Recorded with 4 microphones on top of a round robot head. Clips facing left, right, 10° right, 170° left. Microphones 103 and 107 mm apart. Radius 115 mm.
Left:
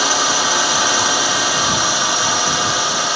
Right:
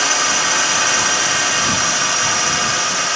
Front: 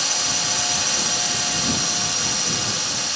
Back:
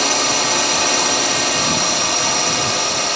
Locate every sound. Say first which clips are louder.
0.0 s a drone: left 2 dB, back 10 dB; 160° left